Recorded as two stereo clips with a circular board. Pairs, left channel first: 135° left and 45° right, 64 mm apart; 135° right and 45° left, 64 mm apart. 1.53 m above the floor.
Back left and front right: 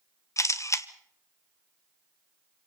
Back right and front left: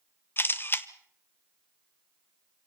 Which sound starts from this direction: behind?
A camera shutter, at 0.4 s.